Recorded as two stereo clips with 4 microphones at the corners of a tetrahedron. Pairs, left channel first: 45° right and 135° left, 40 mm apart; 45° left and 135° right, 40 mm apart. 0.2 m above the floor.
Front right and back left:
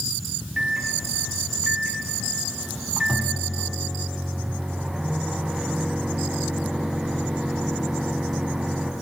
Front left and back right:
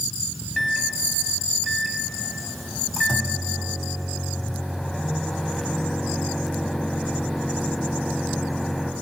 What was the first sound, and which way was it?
A microwave, 130° left.